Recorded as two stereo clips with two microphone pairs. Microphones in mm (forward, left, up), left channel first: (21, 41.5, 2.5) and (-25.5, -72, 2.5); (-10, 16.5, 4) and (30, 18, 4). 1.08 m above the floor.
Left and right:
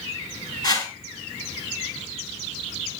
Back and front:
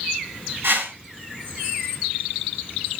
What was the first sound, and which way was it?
A whoosh, 10° left.